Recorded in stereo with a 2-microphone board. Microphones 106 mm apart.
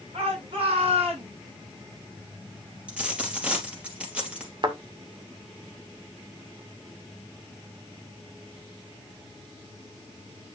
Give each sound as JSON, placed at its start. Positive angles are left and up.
{"t": 0.1, "sound": "a shout", "side_deg": -60, "distance_m": 7.5}
{"t": 2.9, "sound": "a dropped coin", "side_deg": -10, "distance_m": 2.5}
{"t": 4.6, "sound": "a thud", "side_deg": -45, "distance_m": 2.0}